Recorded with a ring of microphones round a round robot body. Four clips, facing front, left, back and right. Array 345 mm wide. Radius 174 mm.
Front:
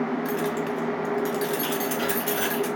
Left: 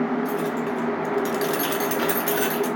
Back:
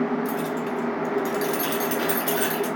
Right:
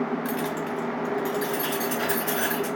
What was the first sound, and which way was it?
Keys jangling, 60° right.